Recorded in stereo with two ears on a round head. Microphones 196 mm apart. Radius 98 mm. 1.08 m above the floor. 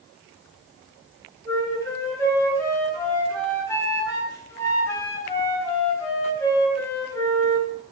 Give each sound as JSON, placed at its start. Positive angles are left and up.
{"t": 1.4, "sound": "a flute", "side_deg": 15, "distance_m": 5.5}